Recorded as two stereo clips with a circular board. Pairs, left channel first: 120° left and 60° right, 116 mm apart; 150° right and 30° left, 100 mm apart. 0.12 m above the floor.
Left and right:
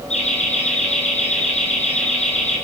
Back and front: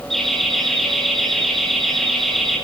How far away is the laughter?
About 3.5 m.